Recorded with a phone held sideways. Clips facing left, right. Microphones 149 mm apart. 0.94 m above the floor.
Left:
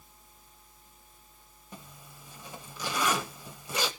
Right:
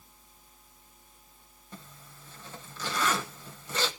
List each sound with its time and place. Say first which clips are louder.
1.7 s a zipper: even; 15° left (ahead or behind), 0.9 m